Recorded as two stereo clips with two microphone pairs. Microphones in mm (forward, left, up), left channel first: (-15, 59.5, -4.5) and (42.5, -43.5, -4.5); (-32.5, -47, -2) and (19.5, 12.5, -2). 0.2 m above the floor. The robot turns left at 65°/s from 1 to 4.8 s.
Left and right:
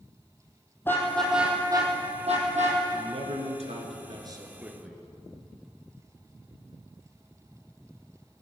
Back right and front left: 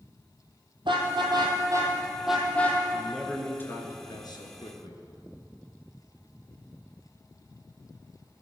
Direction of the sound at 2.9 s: 25° right.